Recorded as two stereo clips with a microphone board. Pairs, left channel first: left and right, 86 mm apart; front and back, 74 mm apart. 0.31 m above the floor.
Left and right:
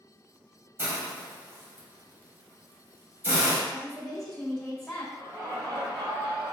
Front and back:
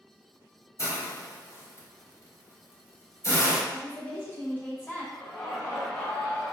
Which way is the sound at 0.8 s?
35° right.